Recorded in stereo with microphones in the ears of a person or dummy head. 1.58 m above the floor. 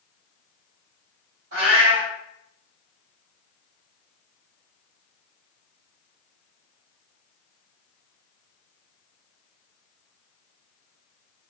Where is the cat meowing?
60° right (ahead or behind), 1.8 m.